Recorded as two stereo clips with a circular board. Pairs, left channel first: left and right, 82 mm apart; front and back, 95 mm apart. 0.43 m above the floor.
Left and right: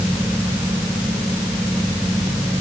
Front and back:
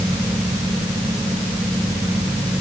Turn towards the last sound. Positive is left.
No sound to turn to.